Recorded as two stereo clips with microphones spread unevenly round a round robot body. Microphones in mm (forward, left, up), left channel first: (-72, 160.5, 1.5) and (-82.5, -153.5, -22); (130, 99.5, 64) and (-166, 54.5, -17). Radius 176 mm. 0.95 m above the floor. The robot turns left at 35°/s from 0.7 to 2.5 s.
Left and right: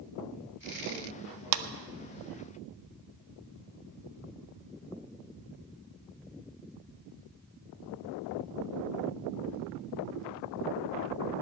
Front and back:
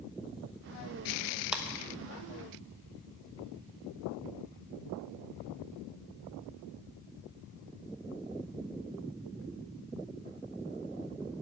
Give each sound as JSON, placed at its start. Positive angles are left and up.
{"t": 1.5, "sound": "a clap", "azimuth_deg": -95, "distance_m": 0.8}